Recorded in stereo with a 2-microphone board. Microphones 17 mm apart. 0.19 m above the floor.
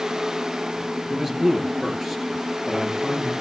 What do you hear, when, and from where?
1.1 s a man speaking: 20° right (ahead or behind), 3.5 m